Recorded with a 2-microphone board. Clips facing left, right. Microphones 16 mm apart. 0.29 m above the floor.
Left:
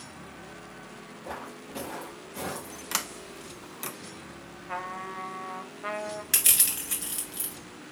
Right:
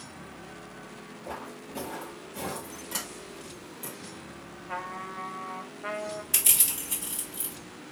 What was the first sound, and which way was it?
Footsteps, 35° left (ahead or behind).